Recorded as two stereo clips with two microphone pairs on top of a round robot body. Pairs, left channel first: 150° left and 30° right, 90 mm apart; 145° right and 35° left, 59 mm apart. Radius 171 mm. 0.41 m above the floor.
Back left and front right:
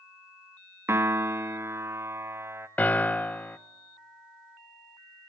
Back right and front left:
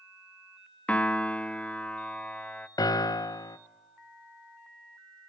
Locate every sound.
0.9 s a piano: 75° right, 1.0 m
2.8 s a piano: 135° right, 0.6 m